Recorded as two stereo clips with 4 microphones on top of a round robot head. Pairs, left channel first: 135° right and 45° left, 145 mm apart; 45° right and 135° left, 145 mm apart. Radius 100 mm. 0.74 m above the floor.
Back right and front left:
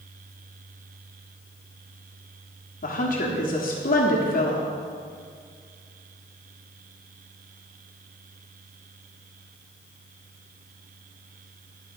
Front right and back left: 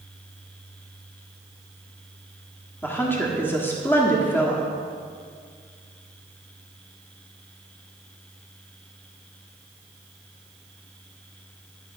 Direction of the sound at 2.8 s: 120° right.